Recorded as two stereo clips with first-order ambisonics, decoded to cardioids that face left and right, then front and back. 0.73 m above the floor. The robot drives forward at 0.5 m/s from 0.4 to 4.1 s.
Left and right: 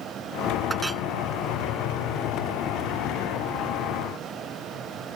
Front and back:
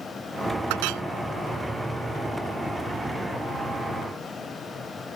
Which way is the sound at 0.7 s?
170° right.